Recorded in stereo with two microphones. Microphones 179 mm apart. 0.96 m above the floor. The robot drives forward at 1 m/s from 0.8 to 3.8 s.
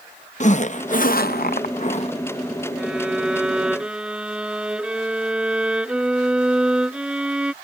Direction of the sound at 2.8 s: 5° right (ahead or behind).